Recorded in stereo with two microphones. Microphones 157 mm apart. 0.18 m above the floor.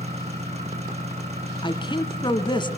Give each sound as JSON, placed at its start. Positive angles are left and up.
{"t": 0.0, "sound": "an engine running", "side_deg": -45, "distance_m": 4.0}
{"t": 1.6, "sound": "a woman speaking", "side_deg": 30, "distance_m": 1.7}